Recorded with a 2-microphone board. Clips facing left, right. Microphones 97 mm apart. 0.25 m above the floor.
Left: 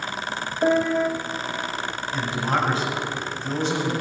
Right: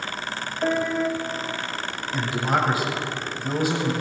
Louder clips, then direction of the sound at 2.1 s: Right 1 dB; 10° right (ahead or behind).